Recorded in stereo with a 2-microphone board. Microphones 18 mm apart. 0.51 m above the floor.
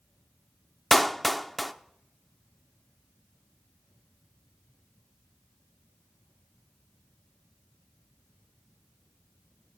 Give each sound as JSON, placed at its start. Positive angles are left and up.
{"t": 0.9, "sound": "a clap", "side_deg": 15, "distance_m": 0.7}